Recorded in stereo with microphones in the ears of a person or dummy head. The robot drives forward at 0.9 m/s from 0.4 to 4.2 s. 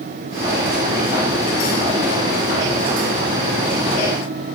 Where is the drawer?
I don't hear a drawer.